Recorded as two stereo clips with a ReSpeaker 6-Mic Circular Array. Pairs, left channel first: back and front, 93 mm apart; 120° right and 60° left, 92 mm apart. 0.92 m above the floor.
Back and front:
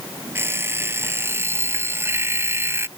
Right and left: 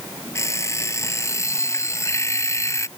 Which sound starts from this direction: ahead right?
An alarm clock, at 0.3 s.